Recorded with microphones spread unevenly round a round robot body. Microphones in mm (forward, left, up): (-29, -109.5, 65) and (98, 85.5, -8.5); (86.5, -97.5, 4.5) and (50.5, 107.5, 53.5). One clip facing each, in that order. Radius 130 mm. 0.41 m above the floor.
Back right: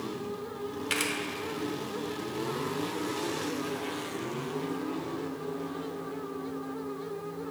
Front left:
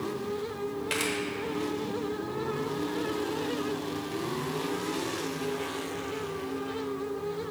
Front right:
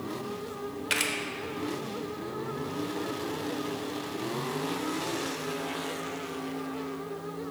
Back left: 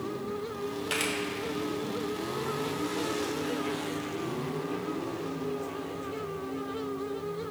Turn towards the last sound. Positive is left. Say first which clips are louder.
# front left 2 dB, back left 2 dB
turn(degrees=-45)